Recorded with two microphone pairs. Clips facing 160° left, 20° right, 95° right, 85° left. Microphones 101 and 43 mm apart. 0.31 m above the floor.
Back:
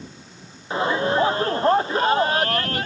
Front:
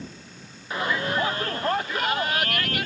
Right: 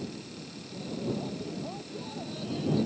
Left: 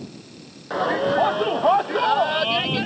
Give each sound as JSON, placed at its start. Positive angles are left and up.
{"t": 0.7, "sound": "a shout", "azimuth_deg": 95}